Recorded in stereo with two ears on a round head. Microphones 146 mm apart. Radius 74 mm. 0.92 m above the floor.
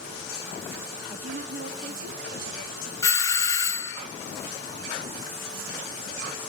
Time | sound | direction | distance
1.1 | a woman speaking | 35° right (ahead or behind) | 0.9 m
3.0 | a doorbell | 20° left (ahead or behind) | 0.7 m